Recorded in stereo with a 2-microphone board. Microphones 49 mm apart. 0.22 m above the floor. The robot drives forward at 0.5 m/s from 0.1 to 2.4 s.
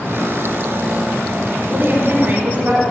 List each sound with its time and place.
1.7 s a woman speaking: 35° right (ahead or behind), 1.8 m; by 2.8 s 40° right (ahead or behind), 1.6 m